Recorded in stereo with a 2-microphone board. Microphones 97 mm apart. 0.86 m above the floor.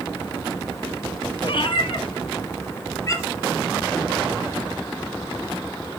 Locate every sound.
1.4 s a cat meowing: 60° left (ahead or behind), 1.9 m; by 3.5 s 30° left (ahead or behind), 3.5 m